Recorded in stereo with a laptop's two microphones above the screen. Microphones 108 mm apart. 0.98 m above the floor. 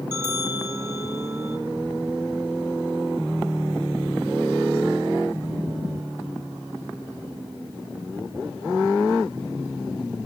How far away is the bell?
About 1.1 m.